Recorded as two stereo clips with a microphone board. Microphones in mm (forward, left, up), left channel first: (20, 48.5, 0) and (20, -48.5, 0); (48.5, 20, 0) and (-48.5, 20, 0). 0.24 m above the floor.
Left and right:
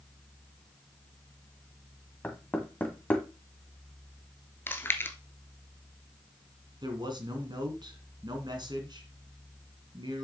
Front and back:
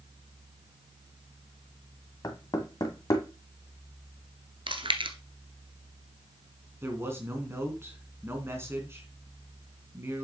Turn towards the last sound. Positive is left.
turn(degrees=-120)